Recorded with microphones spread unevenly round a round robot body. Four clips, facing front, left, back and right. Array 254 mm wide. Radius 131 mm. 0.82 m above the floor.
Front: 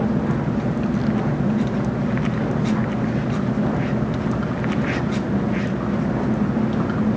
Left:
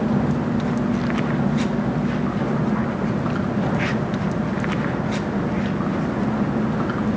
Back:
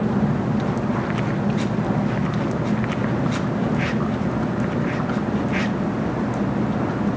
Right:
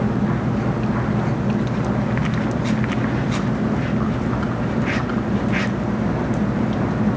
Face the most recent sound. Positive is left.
No sound to turn to.